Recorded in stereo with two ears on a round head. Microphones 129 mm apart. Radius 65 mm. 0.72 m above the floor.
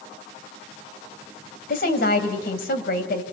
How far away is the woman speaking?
About 3.5 m.